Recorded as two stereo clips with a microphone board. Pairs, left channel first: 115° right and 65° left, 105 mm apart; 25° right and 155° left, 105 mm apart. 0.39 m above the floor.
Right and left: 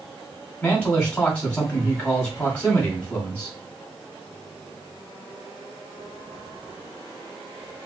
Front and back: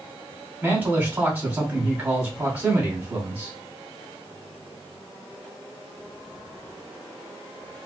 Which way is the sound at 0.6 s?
160° right.